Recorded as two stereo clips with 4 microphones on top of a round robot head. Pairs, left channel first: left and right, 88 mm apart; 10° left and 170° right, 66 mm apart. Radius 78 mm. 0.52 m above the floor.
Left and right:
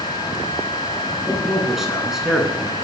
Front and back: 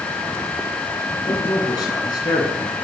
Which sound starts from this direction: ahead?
A man speaking, at 1.3 s.